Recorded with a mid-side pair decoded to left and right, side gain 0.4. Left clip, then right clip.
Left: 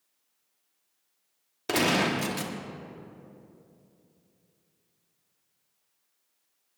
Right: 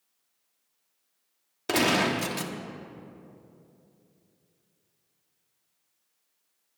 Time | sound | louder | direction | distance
1.7 | a gunshot | right 1 dB | 10° right | 1.1 m